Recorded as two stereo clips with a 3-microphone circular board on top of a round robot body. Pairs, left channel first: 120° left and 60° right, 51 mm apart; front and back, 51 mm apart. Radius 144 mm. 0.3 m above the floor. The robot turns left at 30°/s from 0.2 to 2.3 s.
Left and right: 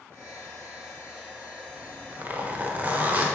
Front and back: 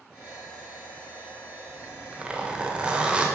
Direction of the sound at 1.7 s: 95° right.